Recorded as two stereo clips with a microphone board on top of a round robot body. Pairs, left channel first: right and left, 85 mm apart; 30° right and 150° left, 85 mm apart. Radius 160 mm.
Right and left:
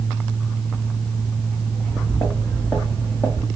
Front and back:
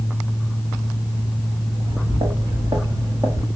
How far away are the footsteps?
About 2.5 m.